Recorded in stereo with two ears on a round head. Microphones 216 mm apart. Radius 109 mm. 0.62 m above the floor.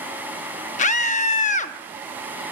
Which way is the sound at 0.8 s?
30° left (ahead or behind).